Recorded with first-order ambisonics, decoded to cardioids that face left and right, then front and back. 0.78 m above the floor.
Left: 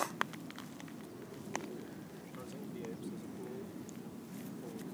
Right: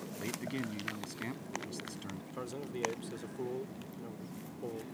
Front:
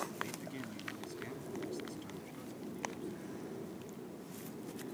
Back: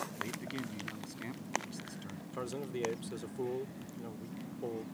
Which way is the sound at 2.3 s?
145° right.